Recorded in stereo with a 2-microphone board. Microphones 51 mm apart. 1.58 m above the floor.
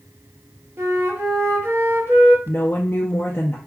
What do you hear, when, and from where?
0.8 s a flute: 50° right (ahead or behind), 0.8 m
2.5 s a woman speaking: 35° left (ahead or behind), 0.5 m